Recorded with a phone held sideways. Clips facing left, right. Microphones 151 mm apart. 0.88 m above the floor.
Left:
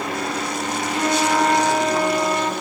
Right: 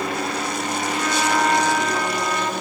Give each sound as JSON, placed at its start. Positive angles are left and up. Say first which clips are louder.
{"t": 0.9, "sound": "a flute", "louder": "left 3 dB", "side_deg": 25, "distance_m": 0.8}